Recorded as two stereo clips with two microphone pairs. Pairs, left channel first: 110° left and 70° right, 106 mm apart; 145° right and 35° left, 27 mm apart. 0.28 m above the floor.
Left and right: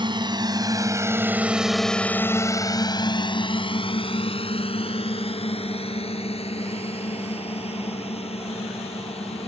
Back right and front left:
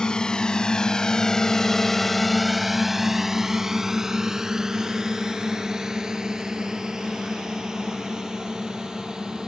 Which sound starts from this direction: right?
A drone, at 0.0 s.